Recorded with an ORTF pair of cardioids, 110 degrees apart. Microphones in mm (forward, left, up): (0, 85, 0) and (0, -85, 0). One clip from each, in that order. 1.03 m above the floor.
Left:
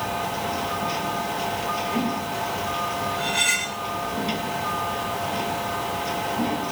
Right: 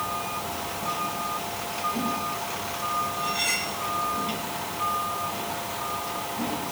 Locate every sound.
0.0 s a machine running: 50° left
3.2 s cutlery clinking: 55° left